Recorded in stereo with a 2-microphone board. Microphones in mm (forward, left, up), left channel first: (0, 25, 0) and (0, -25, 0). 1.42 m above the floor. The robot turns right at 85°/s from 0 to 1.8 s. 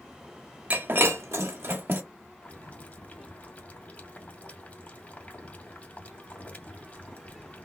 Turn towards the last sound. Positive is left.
turn(degrees=30)  # may be behind; listen again after turning